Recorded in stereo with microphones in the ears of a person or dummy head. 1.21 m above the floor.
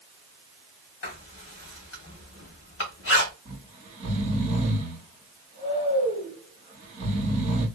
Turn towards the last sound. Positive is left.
turn(degrees=-40)  # may be behind; listen again after turning